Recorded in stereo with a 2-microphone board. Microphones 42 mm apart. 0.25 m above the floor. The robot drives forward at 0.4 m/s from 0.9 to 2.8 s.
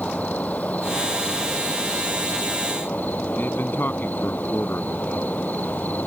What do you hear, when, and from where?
0.0 s an insect: 40° left (ahead or behind); by 6.1 s 50° left (ahead or behind)
3.4 s a man speaking: 60° left (ahead or behind)